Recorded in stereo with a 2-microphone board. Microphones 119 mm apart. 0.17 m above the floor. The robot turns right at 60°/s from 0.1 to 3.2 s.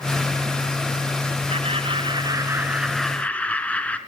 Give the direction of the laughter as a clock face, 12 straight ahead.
3 o'clock.